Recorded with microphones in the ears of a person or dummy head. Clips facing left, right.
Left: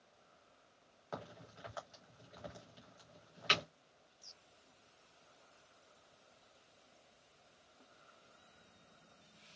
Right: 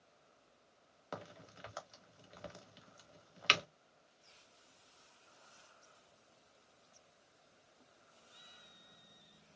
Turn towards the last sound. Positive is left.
turn(degrees=-30)  # may be behind; listen again after turning